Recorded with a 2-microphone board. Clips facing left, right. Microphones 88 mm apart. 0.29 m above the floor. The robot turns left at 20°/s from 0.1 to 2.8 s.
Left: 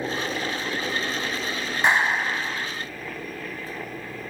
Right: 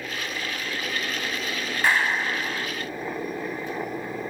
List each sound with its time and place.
0.0 s a helicopter: 25° left (ahead or behind); by 4.3 s 20° right (ahead or behind)
1.8 s a clap: 20° left (ahead or behind); by 2.7 s 10° left (ahead or behind)